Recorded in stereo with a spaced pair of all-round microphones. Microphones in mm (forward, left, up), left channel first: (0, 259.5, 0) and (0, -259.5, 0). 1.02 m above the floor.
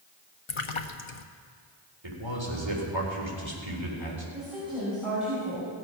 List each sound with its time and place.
0.5 s a splash: 65° left (ahead or behind), 0.8 m
2.0 s a man speaking: 60° right (ahead or behind), 3.5 m
4.3 s a woman speaking: centre (ahead or behind), 5.5 m